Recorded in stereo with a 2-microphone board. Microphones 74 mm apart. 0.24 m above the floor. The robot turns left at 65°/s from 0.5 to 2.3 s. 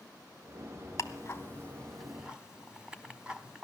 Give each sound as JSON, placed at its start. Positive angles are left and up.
{"t": 1.0, "sound": "ticking", "side_deg": 45, "distance_m": 1.1}